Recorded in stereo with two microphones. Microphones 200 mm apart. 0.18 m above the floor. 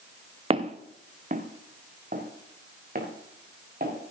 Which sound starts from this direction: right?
Footsteps, at 0.5 s.